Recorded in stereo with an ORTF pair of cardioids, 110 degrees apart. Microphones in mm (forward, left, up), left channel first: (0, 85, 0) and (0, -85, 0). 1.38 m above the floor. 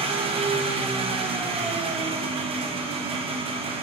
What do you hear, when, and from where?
0.0 s an engine running: 35° right, 1.1 m